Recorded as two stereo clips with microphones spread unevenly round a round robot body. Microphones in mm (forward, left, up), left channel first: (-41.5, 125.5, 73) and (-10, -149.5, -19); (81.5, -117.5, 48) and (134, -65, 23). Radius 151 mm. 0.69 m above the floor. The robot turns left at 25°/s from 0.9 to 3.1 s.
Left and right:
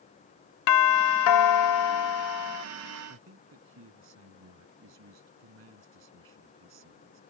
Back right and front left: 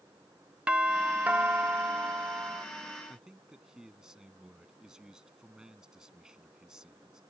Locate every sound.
0.7 s a doorbell: 95° left; by 2.7 s 50° left
3.1 s a man speaking: 40° right